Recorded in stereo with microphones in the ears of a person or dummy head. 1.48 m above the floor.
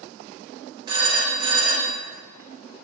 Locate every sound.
0.9 s a phone ringing: 20° right (ahead or behind), 0.7 m